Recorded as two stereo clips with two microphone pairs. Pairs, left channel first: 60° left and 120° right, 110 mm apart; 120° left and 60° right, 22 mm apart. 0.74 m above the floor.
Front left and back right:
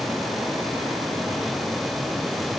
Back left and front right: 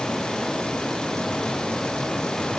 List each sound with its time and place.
Only background noise.